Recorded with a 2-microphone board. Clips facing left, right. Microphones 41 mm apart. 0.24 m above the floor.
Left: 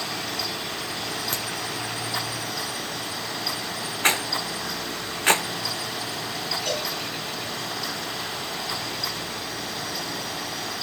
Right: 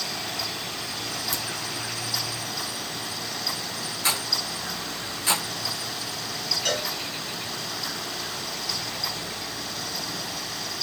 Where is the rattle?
50° left (ahead or behind), 0.7 m.